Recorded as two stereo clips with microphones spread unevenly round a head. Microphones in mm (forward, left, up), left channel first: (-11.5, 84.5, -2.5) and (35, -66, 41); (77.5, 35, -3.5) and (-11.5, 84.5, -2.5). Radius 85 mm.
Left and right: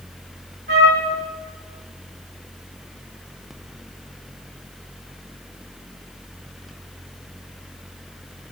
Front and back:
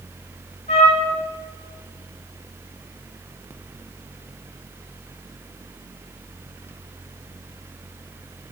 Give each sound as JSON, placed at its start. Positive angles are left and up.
{"t": 0.7, "sound": "a trumpet", "azimuth_deg": -60, "distance_m": 3.5}